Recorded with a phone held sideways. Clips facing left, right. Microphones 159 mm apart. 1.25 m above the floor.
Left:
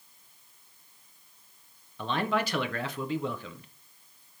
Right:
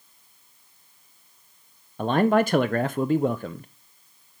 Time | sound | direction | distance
2.0 | a man speaking | 50° right (ahead or behind) | 0.5 m